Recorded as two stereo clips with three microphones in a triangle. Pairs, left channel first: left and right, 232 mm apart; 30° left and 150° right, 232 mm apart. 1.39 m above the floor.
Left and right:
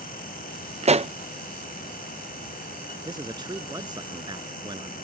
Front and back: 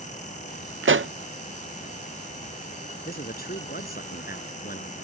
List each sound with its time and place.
0.8 s a pop: 150° right
3.0 s a man speaking: 20° right